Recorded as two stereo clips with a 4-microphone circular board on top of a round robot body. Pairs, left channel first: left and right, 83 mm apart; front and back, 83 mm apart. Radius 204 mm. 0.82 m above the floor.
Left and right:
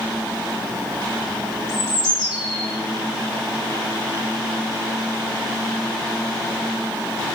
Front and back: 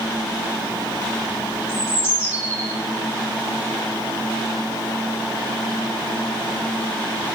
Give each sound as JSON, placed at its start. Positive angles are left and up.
{"t": 1.7, "sound": "a bird", "azimuth_deg": 60, "distance_m": 3.5}